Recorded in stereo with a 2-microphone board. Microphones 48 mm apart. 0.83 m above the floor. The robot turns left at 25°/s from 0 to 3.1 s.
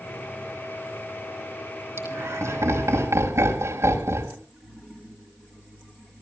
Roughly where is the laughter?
Right.